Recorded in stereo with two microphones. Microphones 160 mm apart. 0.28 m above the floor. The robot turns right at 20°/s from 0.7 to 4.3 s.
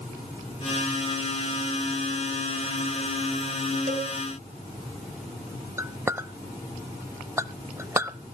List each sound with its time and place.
3.9 s a cowbell: 55° right (ahead or behind), 1.8 m
5.8 s a clink: 15° right (ahead or behind), 0.6 m